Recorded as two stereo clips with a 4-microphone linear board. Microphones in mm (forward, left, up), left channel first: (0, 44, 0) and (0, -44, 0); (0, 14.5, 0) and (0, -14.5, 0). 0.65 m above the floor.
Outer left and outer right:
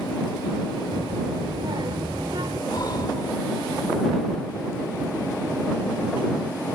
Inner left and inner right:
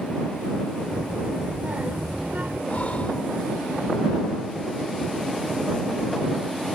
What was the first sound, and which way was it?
A child speaking, 70° right (ahead or behind).